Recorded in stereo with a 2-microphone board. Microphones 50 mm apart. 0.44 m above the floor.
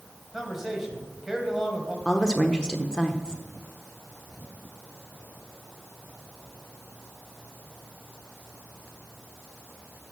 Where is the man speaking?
5° right (ahead or behind), 2.5 m.